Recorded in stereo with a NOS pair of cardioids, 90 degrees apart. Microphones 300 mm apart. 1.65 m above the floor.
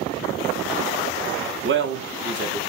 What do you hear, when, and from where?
1.6 s a man speaking: 40° right, 0.7 m